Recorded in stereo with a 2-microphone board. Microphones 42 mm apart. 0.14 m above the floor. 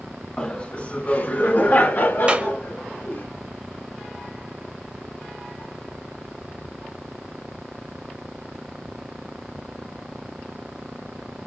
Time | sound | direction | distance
0.4 | laughter | 20° left (ahead or behind) | 1.2 m
2.3 | a clap | 30° right (ahead or behind) | 1.2 m